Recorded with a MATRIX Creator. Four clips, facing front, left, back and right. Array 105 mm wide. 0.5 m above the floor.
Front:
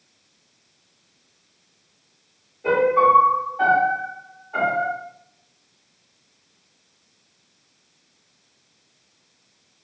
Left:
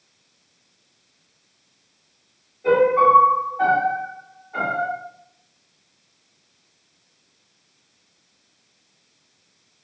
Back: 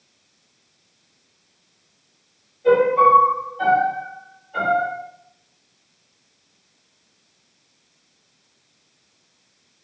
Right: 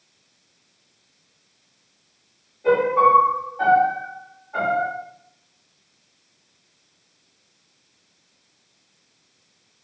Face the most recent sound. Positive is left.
turn(degrees=0)